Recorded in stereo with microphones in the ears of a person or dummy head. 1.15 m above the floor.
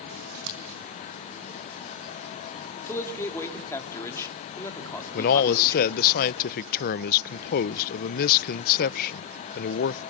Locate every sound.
0.1 s scissors: 70° right (ahead or behind), 5 m
2.9 s a man speaking: 15° left (ahead or behind), 2.5 m
5.1 s a man speaking: 50° left (ahead or behind), 0.5 m